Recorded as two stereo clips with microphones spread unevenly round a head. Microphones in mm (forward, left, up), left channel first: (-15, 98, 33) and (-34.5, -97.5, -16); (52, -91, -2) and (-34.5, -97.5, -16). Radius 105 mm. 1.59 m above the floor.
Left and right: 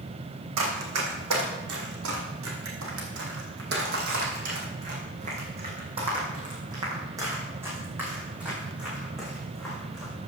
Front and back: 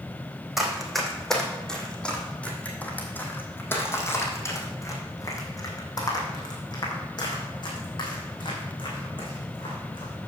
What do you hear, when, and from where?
0.6 s running footsteps: 85° right, 3.5 m; by 10.1 s straight ahead, 5 m